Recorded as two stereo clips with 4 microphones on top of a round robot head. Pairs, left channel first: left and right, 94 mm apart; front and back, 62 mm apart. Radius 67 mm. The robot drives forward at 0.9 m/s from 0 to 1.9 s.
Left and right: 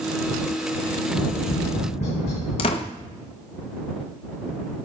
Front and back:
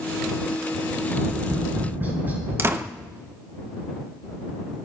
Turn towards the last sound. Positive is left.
turn(degrees=130)